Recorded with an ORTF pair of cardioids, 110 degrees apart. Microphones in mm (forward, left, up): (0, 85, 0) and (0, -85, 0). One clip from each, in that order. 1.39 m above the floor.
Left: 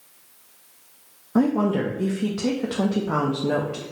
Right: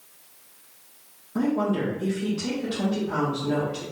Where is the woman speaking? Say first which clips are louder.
Left 3 dB; 55° left, 0.8 m.